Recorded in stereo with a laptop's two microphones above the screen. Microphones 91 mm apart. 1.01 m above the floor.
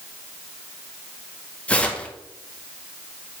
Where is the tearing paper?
15° left (ahead or behind), 0.6 m.